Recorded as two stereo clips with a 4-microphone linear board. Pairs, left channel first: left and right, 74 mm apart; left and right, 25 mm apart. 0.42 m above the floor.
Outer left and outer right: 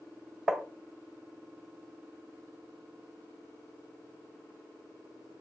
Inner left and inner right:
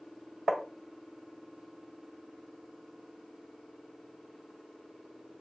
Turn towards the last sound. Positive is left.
turn(degrees=-5)  # may be behind; listen again after turning